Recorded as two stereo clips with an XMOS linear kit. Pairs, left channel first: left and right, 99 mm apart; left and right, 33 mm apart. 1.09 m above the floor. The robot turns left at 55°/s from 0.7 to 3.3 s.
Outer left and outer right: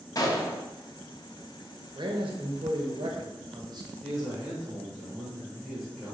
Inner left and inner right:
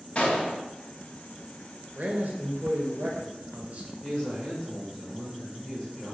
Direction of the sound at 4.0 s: 15° left (ahead or behind).